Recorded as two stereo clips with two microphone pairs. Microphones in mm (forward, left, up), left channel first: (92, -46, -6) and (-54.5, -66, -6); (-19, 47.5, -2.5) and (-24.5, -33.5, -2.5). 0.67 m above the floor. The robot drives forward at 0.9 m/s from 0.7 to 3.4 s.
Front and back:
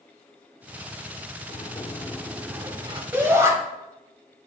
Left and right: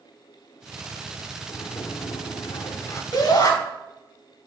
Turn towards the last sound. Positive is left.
turn(degrees=115)